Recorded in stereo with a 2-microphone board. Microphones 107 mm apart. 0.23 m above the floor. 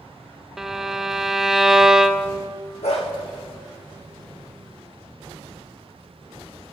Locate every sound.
0.6 s a violin: 5° right (ahead or behind), 0.5 m
2.8 s a dog barking: 70° left (ahead or behind), 5.5 m